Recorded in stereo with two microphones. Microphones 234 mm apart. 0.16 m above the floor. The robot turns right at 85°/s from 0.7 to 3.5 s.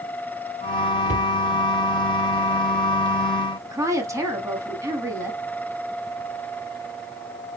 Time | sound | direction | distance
1.1 | a cupboard door | 35° right (ahead or behind) | 0.5 m
3.6 | a woman speaking | 15° right (ahead or behind) | 1.0 m